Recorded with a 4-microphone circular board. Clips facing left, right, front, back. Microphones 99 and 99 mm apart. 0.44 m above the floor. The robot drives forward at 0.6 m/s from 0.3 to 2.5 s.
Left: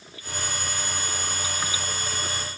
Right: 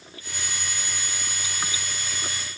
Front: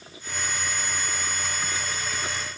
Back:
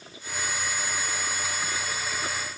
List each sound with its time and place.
Only background noise.